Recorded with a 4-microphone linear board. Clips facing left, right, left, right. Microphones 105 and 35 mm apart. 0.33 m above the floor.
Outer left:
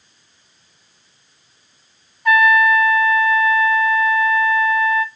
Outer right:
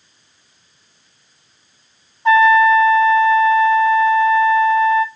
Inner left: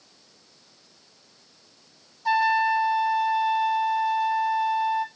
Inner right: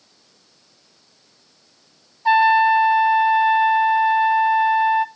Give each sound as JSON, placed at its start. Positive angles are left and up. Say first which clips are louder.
{"t": 2.2, "sound": "a trumpet", "louder": "outer right 4 dB, inner right 7 dB", "side_deg": -25, "distance_m": 0.5}